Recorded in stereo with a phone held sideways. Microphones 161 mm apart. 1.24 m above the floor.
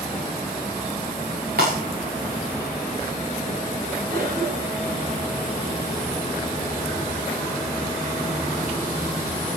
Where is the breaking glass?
75° right (ahead or behind), 7.5 m.